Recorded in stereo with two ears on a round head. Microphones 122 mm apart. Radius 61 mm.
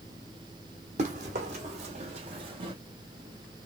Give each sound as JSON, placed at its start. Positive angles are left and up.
{"t": 1.0, "sound": "running footsteps", "side_deg": -60, "distance_m": 1.8}